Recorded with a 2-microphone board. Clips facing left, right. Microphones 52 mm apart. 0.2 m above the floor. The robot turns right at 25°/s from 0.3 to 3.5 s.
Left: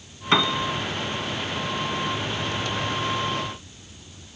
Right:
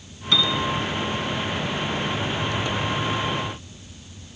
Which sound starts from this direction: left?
A piano, at 0.3 s.